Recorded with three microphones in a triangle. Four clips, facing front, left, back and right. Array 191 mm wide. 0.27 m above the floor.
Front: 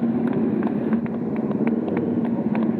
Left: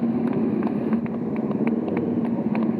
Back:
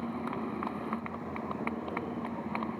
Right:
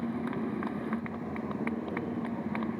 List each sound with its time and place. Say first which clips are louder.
0.0 s a motorcycle: left 11 dB, front 14 dB; 35° left